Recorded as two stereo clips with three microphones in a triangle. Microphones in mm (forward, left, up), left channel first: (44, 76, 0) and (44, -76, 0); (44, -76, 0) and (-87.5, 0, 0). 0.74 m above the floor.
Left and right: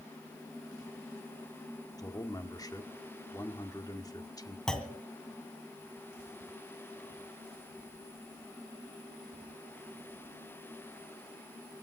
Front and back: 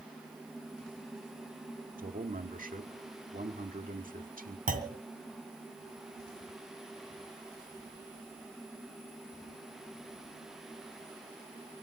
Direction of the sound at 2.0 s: 155° left.